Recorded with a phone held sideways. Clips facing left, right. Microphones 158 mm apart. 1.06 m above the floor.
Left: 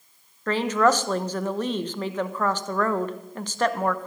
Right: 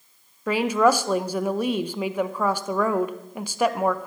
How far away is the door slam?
No door slam in this recording.